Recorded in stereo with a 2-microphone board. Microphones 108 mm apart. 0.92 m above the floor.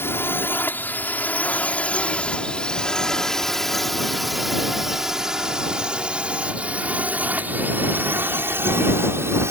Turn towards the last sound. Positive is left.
turn(degrees=-25)  # may be behind; listen again after turning